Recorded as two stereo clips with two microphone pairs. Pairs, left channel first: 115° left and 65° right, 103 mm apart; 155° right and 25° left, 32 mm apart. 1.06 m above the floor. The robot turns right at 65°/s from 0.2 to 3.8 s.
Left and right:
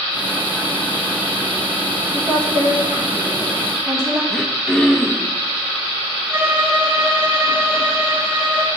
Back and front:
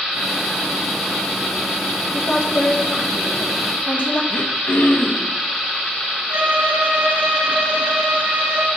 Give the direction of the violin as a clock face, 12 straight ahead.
12 o'clock.